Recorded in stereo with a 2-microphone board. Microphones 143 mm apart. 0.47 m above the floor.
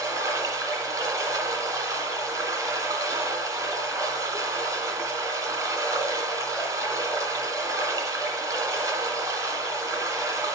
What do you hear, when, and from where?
0.0 s running water: 25° right (ahead or behind), 1.6 m